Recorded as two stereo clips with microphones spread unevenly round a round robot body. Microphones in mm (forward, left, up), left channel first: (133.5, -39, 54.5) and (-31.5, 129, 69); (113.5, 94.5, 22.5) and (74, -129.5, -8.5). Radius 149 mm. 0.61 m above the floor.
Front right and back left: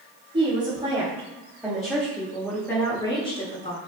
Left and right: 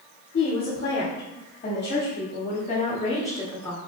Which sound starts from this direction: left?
A woman speaking, at 0.3 s.